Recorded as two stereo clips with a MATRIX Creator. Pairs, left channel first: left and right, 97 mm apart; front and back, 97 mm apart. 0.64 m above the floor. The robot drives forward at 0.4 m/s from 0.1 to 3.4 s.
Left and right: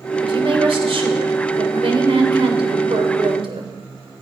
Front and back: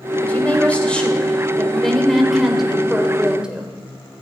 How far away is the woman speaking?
About 3 m.